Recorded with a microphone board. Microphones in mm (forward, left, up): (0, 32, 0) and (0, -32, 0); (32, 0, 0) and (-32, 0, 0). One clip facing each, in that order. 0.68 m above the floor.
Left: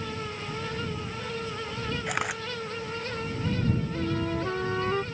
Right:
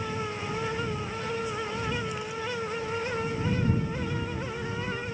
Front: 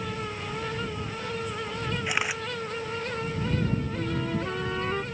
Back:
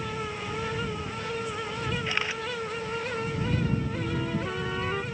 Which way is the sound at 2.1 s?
75° left.